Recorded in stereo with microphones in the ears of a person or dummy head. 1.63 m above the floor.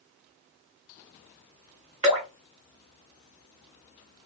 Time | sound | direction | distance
2.0 | dripping | 20° right (ahead or behind) | 1.2 m